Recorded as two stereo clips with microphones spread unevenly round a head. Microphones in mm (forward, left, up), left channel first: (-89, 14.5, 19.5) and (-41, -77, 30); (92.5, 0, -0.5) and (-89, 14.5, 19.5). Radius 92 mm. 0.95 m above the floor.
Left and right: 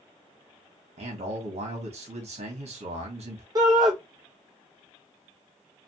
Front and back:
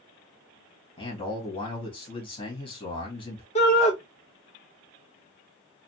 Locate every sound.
1.0 s a man speaking: 65° right, 1.2 m
3.5 s a shout: 20° right, 0.8 m